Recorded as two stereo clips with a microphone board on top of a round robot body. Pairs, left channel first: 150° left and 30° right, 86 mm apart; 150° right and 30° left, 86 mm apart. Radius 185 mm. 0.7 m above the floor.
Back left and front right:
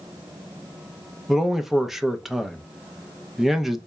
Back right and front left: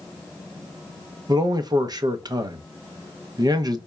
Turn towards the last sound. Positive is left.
turn(degrees=55)